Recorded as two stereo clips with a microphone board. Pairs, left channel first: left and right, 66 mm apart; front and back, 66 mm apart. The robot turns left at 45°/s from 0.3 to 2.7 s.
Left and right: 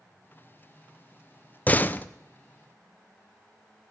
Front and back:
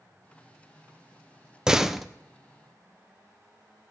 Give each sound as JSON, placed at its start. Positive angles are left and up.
{"t": 1.7, "sound": "a door slam", "azimuth_deg": 115, "distance_m": 0.5}